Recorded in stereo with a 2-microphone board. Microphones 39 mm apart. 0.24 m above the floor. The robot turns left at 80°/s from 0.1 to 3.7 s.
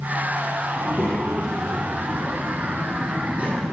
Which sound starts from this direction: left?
A child speaking, at 0.8 s.